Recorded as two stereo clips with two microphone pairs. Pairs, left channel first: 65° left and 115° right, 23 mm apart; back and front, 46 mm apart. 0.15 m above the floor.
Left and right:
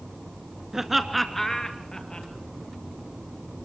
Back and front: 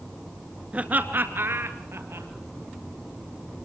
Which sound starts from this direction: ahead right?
Laughter, at 0.7 s.